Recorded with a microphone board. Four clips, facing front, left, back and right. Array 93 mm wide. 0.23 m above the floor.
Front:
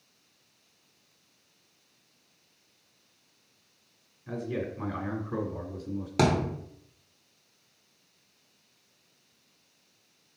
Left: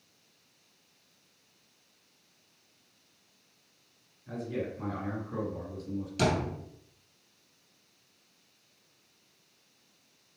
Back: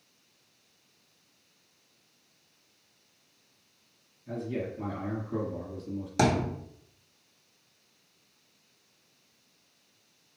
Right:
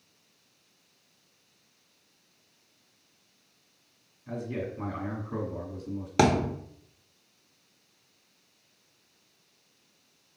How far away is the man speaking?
About 1.9 m.